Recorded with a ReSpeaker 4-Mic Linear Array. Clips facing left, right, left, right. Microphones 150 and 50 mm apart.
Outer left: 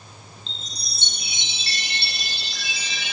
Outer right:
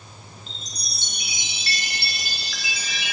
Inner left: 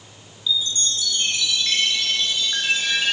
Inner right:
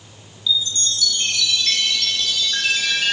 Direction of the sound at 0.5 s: 25° left (ahead or behind).